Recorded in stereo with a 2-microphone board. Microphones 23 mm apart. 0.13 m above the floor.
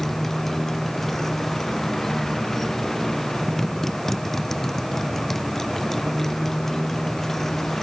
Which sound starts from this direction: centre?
A motorcycle, at 0.0 s.